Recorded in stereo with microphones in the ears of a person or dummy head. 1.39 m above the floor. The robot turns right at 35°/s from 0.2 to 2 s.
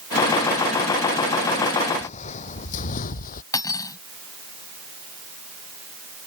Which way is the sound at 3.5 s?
20° left (ahead or behind).